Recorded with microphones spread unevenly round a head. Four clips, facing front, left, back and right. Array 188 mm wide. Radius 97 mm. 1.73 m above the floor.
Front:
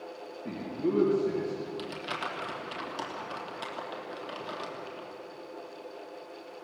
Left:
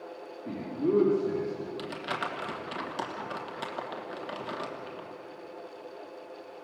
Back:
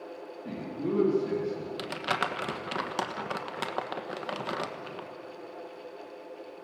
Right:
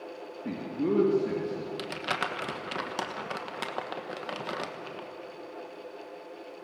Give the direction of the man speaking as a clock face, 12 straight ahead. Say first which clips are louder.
Left 1 dB, front 2 dB; 3 o'clock.